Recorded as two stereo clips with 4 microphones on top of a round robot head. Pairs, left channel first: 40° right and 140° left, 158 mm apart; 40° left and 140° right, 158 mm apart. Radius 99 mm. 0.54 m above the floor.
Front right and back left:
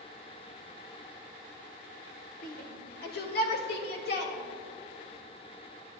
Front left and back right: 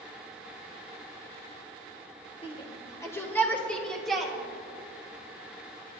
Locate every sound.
2.4 s a shout: 15° right, 1.8 m; by 4.3 s 50° right, 3 m